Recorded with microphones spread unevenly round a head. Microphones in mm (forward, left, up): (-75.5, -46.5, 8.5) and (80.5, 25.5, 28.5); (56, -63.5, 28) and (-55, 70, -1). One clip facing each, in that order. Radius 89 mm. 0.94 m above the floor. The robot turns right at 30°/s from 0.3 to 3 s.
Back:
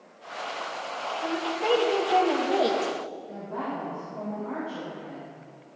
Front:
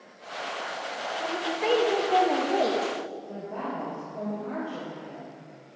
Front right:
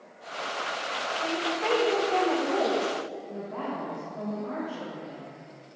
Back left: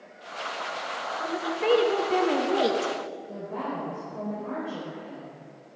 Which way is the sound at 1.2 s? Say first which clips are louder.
Back 1 dB, back left 1 dB; 80° left.